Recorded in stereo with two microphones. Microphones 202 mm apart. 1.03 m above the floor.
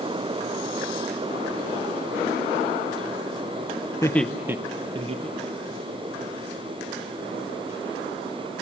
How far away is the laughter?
About 0.8 m.